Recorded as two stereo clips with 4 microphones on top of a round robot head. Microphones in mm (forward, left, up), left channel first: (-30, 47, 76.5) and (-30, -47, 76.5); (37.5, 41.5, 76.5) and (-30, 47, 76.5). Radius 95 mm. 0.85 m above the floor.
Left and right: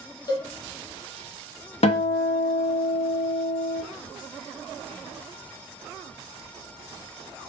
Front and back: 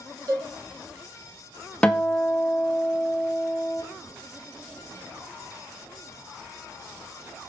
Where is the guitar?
70° left, 0.6 m.